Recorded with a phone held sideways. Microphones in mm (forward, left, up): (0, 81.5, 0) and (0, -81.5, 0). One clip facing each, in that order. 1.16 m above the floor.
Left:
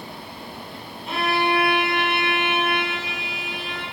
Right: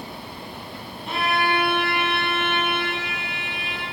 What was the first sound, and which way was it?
A violin, centre (ahead or behind).